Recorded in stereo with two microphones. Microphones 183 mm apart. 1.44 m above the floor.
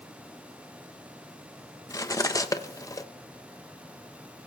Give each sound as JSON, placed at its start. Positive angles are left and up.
{"t": 1.9, "sound": "cutlery clinking", "side_deg": 20, "distance_m": 0.7}